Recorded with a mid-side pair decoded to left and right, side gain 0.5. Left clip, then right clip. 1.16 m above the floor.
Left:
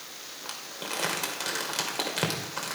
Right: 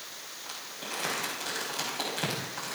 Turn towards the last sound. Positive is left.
turn(degrees=60)